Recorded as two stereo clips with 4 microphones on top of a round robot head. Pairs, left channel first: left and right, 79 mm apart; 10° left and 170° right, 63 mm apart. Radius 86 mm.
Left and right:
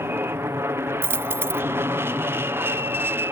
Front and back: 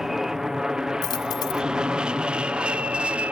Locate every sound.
0.0 s an aircraft: 90° right; by 3.3 s 115° right
1.0 s a dropped coin: 30° right